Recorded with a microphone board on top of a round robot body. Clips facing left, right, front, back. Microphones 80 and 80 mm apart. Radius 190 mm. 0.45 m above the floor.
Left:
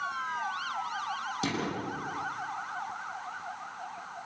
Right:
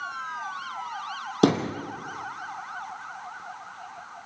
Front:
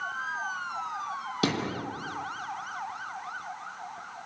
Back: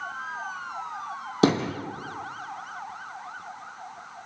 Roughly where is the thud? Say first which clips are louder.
Right 13 dB, back 8 dB; behind right.